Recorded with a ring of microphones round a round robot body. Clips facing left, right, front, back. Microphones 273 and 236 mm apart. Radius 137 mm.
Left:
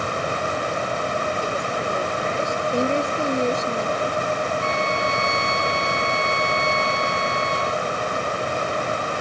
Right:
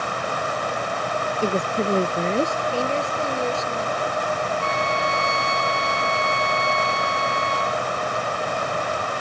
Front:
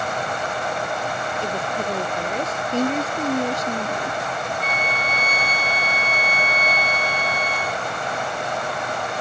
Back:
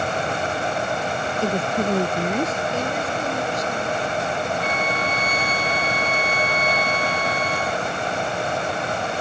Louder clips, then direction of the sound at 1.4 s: Right 4 dB, back 6 dB; 150° right.